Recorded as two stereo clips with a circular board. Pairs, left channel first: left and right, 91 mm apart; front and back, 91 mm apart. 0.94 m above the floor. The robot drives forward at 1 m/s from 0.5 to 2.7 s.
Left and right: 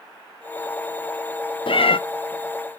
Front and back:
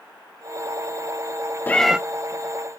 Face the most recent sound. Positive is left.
turn(degrees=150)